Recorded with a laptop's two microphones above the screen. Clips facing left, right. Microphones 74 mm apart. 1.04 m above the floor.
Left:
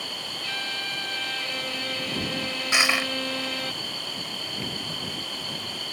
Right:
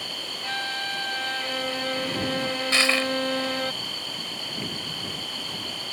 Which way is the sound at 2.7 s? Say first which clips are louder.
Even; 20° left (ahead or behind).